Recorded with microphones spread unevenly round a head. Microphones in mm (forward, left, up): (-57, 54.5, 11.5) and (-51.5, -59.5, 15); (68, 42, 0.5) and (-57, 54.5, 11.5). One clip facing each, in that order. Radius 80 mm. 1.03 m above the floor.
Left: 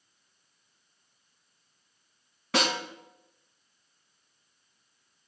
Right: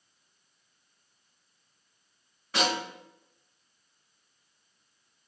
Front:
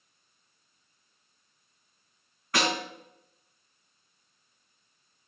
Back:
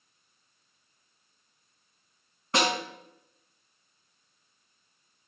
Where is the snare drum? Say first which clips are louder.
Left 1 dB, back 2 dB; 110° left, 4.5 m.